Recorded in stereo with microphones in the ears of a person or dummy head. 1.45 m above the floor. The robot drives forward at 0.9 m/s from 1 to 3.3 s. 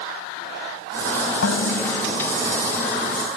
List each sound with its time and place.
1.4 s dishes clattering: 75° left (ahead or behind); by 2.3 s 70° left (ahead or behind)